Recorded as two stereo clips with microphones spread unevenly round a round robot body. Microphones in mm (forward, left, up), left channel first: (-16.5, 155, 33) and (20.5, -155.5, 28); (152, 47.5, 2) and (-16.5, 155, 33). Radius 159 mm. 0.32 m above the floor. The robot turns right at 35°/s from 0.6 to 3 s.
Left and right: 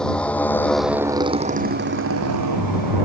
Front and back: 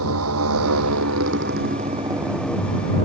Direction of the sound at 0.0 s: 175° right.